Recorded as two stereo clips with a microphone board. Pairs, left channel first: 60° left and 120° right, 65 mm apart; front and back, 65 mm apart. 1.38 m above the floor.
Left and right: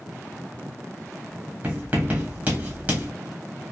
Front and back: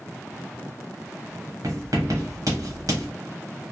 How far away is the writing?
About 1.2 m.